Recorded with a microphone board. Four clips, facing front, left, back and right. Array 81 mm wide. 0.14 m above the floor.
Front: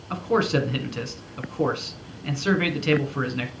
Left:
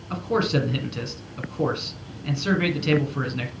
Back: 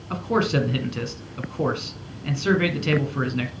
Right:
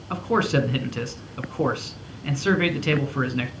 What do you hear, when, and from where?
0.1 s a man speaking: 90° right, 1.1 m